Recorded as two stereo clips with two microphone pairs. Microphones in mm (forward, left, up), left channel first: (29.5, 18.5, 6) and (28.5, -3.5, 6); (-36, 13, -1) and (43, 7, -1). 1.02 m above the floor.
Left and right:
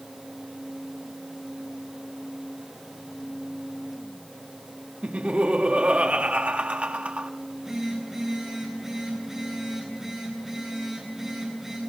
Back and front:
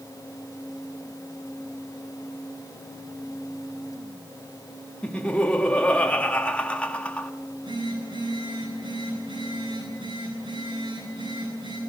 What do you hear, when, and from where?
5.0 s laughter: 110° right, 1.5 m
7.4 s a phone buzzing: 20° right, 9.5 m